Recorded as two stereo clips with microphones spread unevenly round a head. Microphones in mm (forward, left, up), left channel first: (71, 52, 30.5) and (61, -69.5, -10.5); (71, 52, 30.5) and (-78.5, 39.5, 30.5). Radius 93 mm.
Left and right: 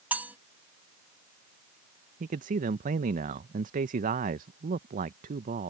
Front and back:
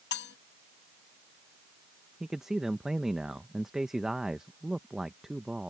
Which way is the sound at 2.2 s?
90° right.